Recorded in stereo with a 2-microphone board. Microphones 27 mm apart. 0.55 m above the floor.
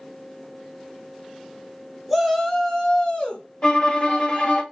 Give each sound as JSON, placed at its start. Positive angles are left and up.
{"t": 2.1, "sound": "a shout", "side_deg": -5, "distance_m": 0.9}
{"t": 3.6, "sound": "a violin", "side_deg": 25, "distance_m": 0.6}